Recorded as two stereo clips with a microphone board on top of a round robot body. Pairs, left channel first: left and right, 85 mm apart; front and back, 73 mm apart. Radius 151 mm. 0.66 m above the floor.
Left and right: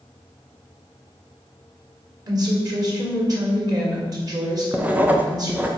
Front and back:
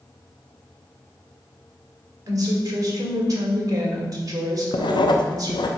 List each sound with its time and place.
2.3 s a woman speaking: 135° right, 2 m
4.7 s writing: 20° right, 0.7 m